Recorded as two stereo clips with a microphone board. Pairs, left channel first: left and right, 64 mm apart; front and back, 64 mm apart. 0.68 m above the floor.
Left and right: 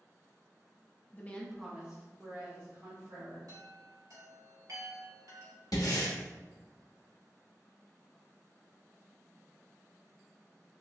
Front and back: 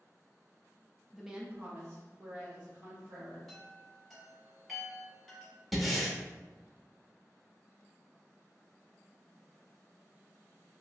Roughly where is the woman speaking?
Left.